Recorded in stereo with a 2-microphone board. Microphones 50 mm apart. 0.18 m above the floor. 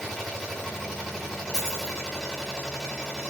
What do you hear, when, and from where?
0.0 s an engine running: 5° right (ahead or behind), 7.5 m
1.5 s a dropped coin: 10° left (ahead or behind), 5 m